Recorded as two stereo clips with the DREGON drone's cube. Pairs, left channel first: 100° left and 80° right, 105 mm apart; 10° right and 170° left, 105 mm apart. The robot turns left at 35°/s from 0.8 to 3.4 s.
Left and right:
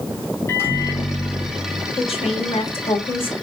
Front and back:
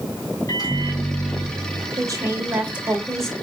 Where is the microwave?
35° left, 3 m; by 1.9 s straight ahead, 3 m.